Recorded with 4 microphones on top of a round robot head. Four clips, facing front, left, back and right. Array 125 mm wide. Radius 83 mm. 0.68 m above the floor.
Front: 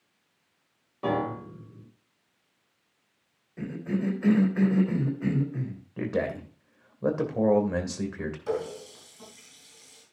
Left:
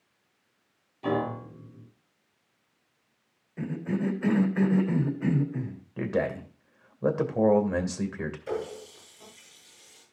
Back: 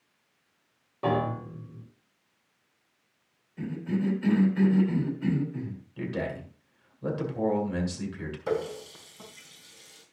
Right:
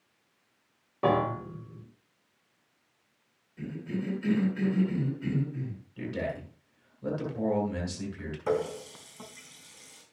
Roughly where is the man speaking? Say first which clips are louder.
Left 6 dB, front 4 dB; ahead left.